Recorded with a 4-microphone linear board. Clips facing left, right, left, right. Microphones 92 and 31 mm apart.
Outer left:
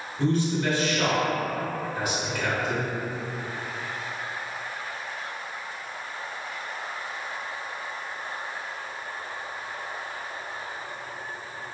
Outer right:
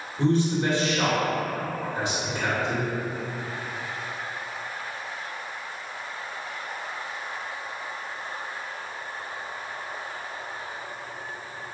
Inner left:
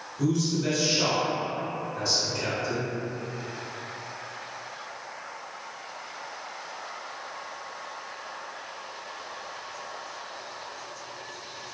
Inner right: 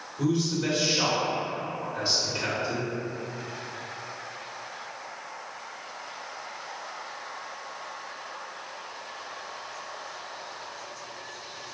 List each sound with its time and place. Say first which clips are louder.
0.2 s a man speaking: outer right 2 dB, even; 25° right (ahead or behind), 1.6 m